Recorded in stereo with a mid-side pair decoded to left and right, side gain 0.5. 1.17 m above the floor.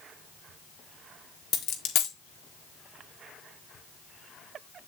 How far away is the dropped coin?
About 1.4 m.